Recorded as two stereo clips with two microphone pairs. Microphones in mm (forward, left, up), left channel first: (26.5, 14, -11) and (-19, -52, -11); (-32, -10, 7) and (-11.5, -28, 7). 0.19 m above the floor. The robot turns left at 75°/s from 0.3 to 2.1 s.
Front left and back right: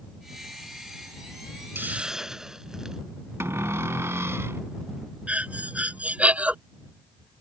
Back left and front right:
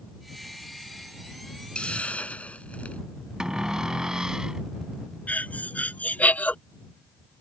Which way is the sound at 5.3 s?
165° left.